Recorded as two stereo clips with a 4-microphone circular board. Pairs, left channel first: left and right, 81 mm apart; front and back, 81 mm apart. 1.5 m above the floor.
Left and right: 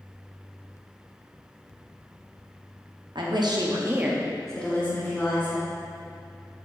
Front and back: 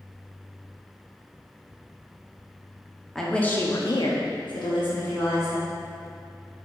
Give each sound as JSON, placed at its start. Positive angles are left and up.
{"t": 3.1, "sound": "a woman speaking", "azimuth_deg": -85, "distance_m": 0.8}